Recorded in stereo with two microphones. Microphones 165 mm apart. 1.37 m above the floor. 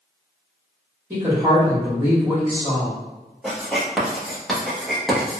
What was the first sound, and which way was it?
A woman speaking, 15° right (ahead or behind).